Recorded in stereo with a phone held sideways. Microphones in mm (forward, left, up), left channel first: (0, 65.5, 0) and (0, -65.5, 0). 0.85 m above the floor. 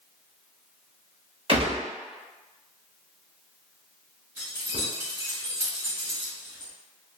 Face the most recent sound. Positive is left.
turn(degrees=-20)  # may be behind; listen again after turning